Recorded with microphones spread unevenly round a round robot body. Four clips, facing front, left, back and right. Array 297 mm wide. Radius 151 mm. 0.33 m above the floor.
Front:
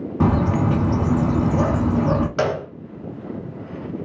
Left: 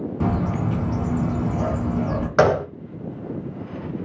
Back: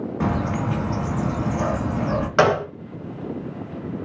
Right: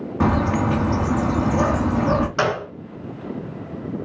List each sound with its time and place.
0.2 s a bird: 25° right, 1.8 m
2.4 s a gunshot: 110° left, 1.1 m